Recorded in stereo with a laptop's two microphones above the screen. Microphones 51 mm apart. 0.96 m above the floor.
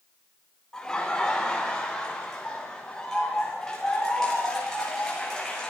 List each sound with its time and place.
0.7 s laughter: 15° left (ahead or behind), 2.5 m; by 5.7 s 10° left (ahead or behind), 5.5 m